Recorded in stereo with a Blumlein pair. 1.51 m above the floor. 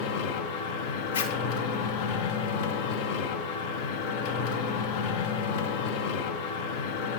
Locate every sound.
0.0 s a machine running: 50° left, 0.8 m
1.1 s a zipper: 65° left, 0.9 m